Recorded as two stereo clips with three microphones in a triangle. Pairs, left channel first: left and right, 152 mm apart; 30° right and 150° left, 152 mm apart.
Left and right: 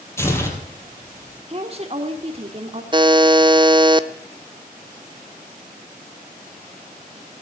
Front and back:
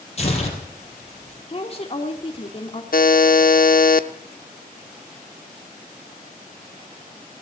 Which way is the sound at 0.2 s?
15° left.